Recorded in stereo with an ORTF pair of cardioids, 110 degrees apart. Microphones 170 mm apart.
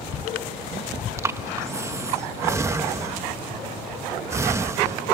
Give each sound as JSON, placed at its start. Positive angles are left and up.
{"t": 1.2, "sound": "breathing", "azimuth_deg": -15}